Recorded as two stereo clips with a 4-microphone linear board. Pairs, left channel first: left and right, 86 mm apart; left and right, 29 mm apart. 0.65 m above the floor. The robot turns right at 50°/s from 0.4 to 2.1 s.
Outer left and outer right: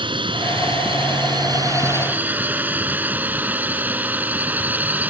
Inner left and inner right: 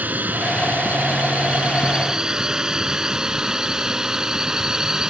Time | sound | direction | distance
0.0 | a drone | 70° right (ahead or behind) | ?